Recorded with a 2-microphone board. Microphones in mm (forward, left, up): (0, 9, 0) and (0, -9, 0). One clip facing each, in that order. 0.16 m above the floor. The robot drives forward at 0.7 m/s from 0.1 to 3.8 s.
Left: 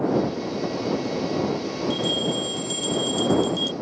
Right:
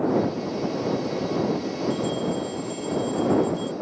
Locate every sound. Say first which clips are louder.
1.9 s a bell: left 4 dB; 45° left (ahead or behind); by 3.7 s 50° left (ahead or behind)